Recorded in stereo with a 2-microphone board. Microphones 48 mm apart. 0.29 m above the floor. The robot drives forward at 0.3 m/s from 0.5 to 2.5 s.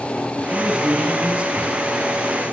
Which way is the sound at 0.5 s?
25° right (ahead or behind).